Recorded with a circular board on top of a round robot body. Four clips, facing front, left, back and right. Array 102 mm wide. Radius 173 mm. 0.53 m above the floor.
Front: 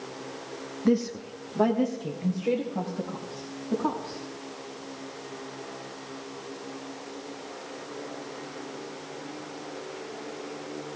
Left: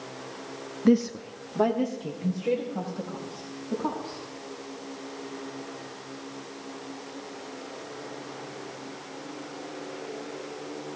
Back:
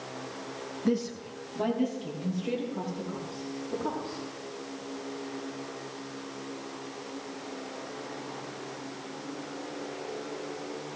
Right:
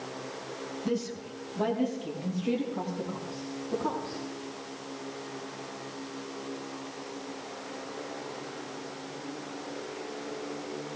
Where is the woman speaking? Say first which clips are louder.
Left 11 dB, front 4 dB; 75° left, 0.9 m; by 4.2 s 45° left, 5 m.